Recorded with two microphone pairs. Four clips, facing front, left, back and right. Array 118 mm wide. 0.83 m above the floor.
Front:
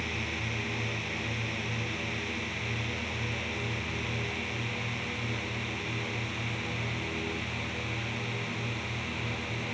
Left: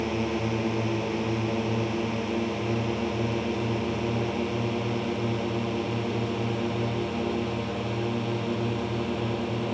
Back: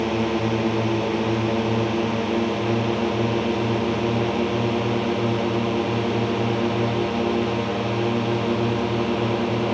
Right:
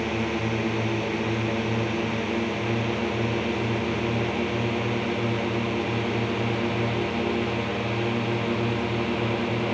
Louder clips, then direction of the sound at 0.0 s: Right 1 dB, back 15 dB; straight behind.